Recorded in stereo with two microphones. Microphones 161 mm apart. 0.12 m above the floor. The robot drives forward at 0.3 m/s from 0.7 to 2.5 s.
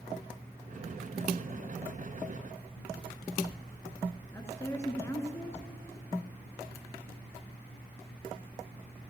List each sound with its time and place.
4.3 s a woman speaking: 15° left (ahead or behind), 1.4 m